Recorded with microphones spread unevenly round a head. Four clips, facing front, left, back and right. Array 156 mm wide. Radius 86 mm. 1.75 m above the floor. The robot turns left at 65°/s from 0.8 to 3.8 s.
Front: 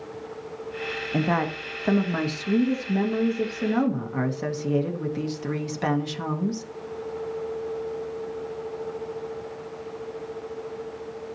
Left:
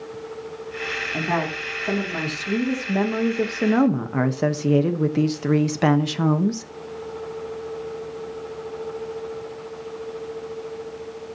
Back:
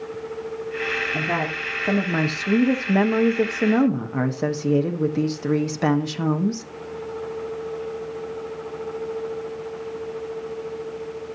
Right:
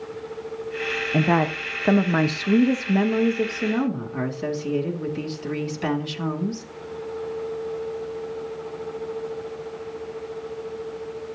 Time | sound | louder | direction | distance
1.1 | a woman speaking | right 5 dB, front 6 dB | 60° right | 1.5 m